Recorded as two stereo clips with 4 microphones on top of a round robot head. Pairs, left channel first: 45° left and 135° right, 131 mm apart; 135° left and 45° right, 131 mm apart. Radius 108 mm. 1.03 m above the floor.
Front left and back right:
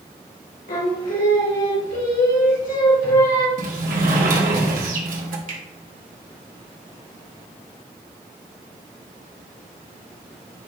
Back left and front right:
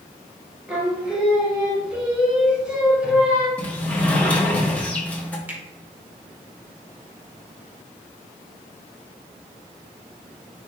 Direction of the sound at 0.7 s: 35° left.